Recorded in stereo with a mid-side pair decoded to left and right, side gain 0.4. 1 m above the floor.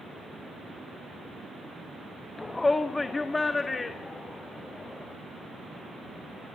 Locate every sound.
2.4 s a shout: 20° left, 0.9 m; by 5.1 s 30° left, 4 m